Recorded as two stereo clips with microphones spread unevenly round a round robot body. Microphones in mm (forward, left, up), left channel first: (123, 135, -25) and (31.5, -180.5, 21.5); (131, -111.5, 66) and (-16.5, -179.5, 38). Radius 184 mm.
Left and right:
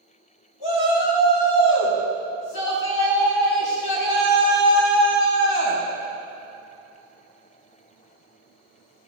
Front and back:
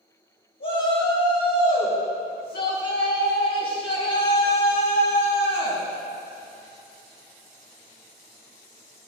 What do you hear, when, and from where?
0.6 s a shout: 75° left, 4 m